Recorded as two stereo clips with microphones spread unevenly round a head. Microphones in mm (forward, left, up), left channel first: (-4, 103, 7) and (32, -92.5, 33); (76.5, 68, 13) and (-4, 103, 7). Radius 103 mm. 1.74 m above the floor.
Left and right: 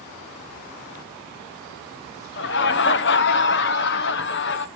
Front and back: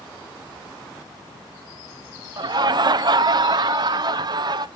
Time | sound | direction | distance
2.4 | laughter | 130° left | 0.7 m